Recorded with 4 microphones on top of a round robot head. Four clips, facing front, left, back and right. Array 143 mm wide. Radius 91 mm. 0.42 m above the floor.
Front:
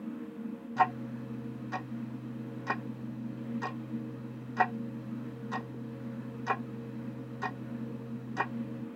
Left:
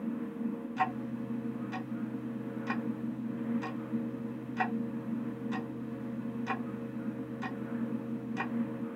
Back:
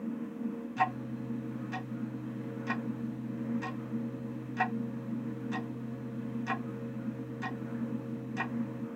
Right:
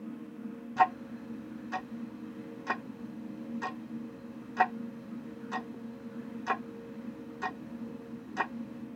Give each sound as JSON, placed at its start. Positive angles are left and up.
{"t": 0.8, "sound": "ticking", "azimuth_deg": -45, "distance_m": 1.0}